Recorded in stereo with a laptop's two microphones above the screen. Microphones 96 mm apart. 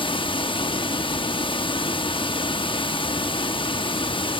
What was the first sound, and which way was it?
Running water, 60° left (ahead or behind).